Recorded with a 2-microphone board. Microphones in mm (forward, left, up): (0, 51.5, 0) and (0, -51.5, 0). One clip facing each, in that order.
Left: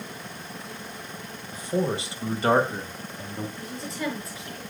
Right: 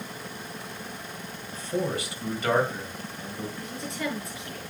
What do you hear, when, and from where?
1.5 s a man speaking: 10° left (ahead or behind), 1.8 m; by 3.5 s 50° left (ahead or behind), 2.5 m
3.6 s a woman speaking: centre (ahead or behind), 6 m